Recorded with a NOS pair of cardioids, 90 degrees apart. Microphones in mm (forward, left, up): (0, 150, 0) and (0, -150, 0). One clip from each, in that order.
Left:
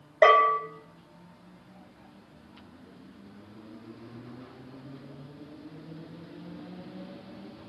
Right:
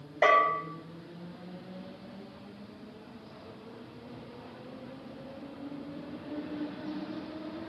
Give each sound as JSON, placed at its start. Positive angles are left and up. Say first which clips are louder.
{"t": 0.2, "sound": "a bell", "louder": "left 4 dB", "azimuth_deg": 35, "distance_m": 0.9}